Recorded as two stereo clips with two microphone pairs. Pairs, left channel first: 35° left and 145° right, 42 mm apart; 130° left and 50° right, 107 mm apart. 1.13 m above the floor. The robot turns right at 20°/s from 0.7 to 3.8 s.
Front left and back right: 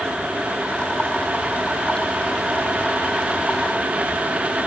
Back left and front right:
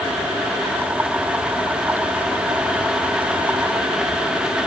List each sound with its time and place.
Only background noise.